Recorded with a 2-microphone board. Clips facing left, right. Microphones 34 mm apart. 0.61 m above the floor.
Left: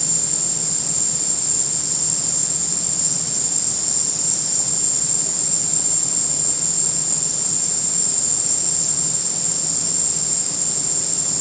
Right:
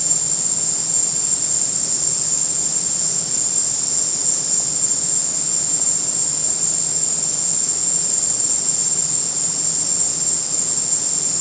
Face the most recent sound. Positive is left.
turn(degrees=45)  # may be behind; listen again after turning